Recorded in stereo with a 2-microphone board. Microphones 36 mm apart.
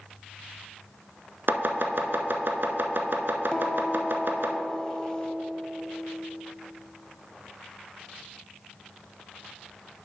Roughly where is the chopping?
Right.